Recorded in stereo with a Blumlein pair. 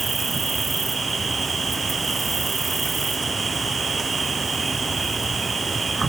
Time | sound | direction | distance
0.0 | an insect | 10° right | ?